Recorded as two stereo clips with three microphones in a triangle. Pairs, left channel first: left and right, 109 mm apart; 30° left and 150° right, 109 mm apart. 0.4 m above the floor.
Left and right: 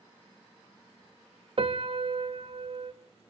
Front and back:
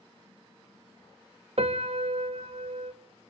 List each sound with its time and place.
1.6 s a piano: 125° right, 0.6 m